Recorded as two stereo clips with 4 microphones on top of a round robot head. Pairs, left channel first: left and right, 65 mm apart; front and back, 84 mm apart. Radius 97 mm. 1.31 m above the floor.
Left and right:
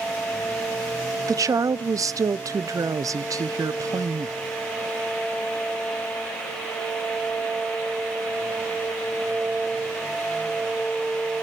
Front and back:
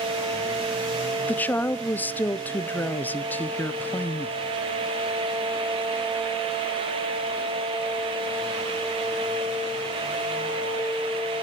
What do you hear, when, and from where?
1.3 s a woman speaking: 70° right, 0.6 m